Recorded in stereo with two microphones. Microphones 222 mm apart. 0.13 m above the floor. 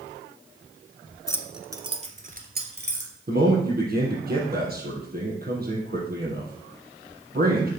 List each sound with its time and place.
1.3 s keys jangling: 15° left (ahead or behind), 1.1 m; by 3.2 s 55° right (ahead or behind), 2.5 m
3.3 s a man speaking: 45° right (ahead or behind), 4 m